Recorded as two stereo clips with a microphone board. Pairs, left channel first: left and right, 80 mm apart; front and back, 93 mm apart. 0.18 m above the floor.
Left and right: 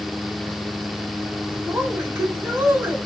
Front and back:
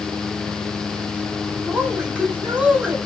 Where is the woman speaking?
120° right, 1.5 m.